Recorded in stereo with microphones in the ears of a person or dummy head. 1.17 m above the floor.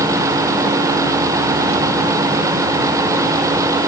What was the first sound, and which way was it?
Only background noise.